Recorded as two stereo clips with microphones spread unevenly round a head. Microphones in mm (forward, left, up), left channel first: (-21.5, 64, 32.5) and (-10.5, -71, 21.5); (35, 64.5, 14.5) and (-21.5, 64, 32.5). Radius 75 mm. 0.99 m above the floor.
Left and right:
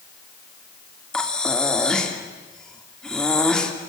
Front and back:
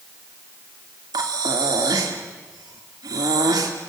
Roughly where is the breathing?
Behind.